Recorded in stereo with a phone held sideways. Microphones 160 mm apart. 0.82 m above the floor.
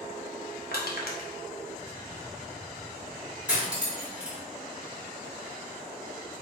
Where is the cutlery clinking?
5° right (ahead or behind), 1.2 m.